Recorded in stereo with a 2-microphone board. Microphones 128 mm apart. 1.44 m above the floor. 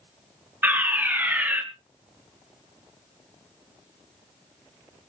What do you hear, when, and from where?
0.6 s a fire alarm: 15° right (ahead or behind), 1.8 m